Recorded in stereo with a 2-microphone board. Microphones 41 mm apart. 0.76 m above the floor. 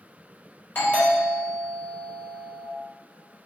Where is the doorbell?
45° left (ahead or behind), 1.7 m.